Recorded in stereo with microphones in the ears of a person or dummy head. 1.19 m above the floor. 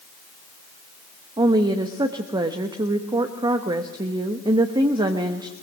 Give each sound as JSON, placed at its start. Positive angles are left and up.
{"t": 1.4, "sound": "a woman speaking", "side_deg": -25, "distance_m": 1.1}